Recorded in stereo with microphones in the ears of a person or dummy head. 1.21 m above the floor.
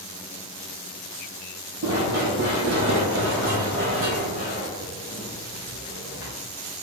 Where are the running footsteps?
55° right (ahead or behind), 2.5 m; by 6.3 s 70° right (ahead or behind), 4.5 m.